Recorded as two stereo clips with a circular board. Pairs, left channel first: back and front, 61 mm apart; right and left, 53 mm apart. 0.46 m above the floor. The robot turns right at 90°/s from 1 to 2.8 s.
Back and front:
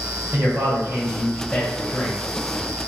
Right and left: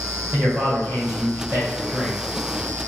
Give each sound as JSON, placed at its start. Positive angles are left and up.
{"t": 0.3, "sound": "a man speaking", "azimuth_deg": 55, "distance_m": 1.7}